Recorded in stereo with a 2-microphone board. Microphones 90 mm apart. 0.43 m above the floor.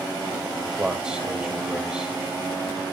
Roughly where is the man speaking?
Centre.